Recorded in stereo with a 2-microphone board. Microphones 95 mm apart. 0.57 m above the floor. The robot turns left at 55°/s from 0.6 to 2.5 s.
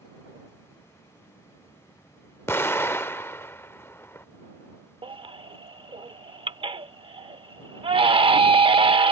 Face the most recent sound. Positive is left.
turn(degrees=-65)  # may be behind; listen again after turning